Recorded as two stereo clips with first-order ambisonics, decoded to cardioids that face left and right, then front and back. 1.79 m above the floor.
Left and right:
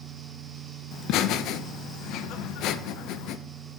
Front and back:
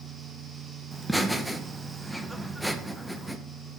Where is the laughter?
90° left, 0.6 m.